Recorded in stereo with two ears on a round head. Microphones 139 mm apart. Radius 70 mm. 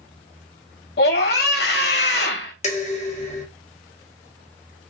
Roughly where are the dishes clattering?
Left.